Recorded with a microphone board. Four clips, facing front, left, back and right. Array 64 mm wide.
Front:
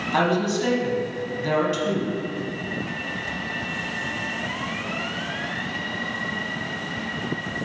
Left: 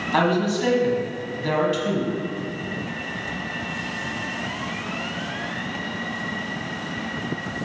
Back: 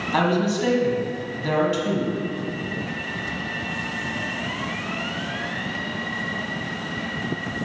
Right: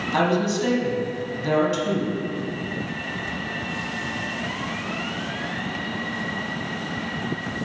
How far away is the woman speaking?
About 1.4 m.